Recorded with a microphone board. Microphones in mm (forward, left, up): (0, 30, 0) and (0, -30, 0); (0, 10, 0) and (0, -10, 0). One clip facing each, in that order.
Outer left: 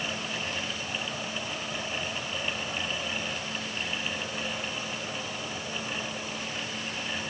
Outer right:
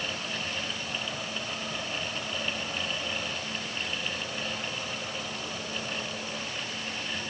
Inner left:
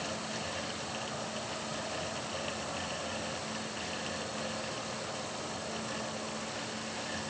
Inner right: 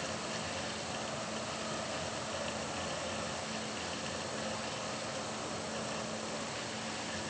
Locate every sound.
Only background noise.